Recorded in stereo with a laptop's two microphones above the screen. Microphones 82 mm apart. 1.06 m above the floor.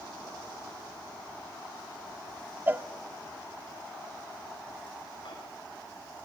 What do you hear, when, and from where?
2.7 s a cowbell: 25° right (ahead or behind), 0.8 m
5.2 s a microwave: 80° left, 5.5 m